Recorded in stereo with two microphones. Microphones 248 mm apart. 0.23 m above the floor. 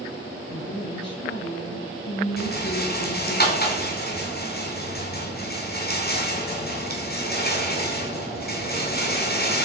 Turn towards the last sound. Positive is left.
turn(degrees=40)  # may be behind; listen again after turning